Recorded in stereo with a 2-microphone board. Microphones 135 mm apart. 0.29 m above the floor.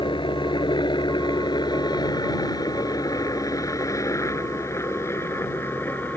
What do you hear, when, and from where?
0.0 s a helicopter: 35° left (ahead or behind); by 6.2 s 15° left (ahead or behind)